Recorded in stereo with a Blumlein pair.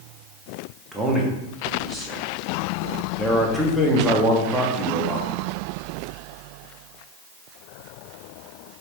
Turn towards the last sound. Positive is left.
turn(degrees=-5)